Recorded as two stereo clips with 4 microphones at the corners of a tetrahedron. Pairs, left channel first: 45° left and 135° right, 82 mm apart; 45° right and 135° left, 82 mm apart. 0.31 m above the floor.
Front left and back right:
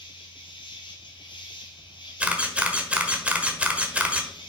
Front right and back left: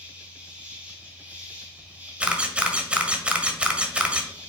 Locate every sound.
0.0 s an insect: 65° left, 3 m
2.2 s a camera shutter: straight behind, 1.3 m